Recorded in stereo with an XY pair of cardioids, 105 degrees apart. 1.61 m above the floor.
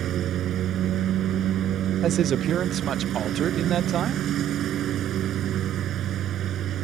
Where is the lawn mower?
65° right.